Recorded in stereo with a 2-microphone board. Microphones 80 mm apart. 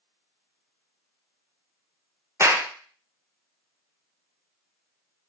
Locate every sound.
2.4 s a clap: 35° right (ahead or behind), 0.6 m